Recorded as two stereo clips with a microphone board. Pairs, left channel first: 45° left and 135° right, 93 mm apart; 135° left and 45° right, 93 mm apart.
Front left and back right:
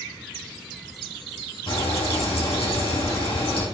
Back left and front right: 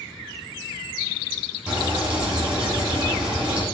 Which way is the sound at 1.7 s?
35° left.